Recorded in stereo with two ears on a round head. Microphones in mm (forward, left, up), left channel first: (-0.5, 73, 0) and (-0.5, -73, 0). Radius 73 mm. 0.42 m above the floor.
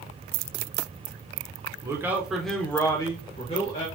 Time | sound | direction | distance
1.8 | a man speaking | 20° right (ahead or behind) | 0.9 m